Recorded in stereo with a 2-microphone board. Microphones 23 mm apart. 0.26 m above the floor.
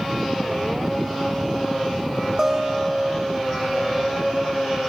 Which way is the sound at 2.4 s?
20° right (ahead or behind).